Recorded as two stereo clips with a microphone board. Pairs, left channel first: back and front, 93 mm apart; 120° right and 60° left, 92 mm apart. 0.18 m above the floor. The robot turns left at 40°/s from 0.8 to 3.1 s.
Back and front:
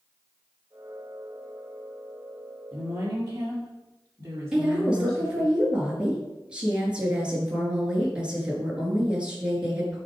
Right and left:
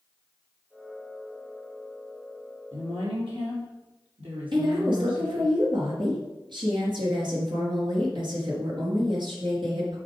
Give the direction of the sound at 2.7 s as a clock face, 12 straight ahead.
10 o'clock.